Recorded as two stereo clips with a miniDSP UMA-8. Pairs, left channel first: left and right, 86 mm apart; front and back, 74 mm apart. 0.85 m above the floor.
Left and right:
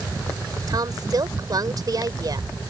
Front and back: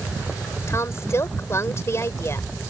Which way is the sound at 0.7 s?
50° right.